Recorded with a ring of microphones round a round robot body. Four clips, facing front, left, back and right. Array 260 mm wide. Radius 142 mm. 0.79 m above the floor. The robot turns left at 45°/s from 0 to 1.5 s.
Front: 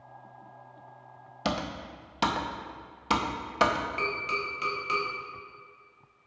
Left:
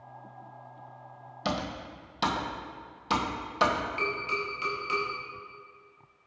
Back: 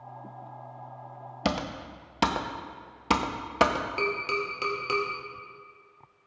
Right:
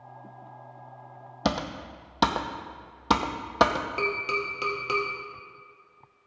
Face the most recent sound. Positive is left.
turn(degrees=-130)